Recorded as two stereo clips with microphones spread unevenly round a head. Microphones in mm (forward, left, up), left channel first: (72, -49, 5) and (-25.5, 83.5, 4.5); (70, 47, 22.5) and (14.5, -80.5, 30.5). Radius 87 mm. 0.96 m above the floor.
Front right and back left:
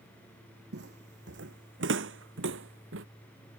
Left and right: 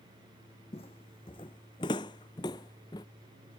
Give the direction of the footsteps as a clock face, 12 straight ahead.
8 o'clock.